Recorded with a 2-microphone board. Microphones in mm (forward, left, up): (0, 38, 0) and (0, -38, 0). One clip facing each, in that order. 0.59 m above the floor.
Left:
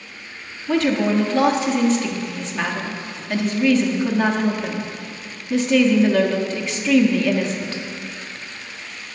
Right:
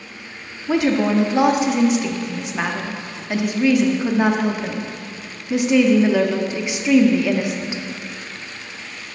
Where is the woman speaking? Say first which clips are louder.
Right 1 dB; 15° right (ahead or behind), 0.6 m.